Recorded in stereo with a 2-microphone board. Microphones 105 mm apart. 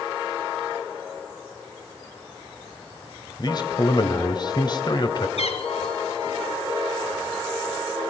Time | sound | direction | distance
3.4 | a man speaking | 40° left (ahead or behind) | 1.4 m
5.4 | a cat meowing | 75° left (ahead or behind) | 2 m